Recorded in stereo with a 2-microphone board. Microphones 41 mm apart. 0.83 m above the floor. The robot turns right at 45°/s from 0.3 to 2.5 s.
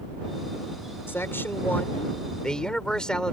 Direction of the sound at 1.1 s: 95° left.